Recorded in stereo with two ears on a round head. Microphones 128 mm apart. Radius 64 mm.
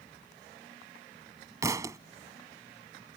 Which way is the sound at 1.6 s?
25° right (ahead or behind).